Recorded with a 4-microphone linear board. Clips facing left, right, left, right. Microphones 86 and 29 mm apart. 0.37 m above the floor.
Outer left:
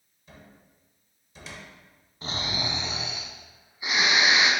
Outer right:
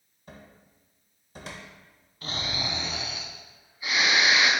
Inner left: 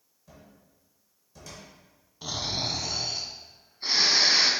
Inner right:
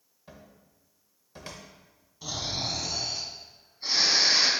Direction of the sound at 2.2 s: 20° left (ahead or behind).